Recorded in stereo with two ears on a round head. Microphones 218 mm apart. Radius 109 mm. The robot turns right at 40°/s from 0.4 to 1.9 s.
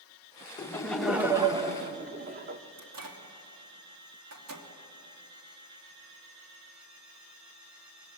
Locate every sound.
0.6 s laughter: 160° left, 1.2 m; by 2.6 s 145° right, 1.2 m
2.8 s a microwave: 70° right (ahead or behind), 2.5 m